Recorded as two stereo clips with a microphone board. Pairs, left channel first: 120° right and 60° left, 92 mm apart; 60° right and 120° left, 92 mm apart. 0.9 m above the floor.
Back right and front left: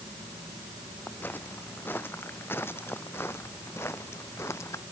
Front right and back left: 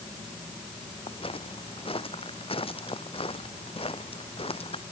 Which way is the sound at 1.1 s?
50° right.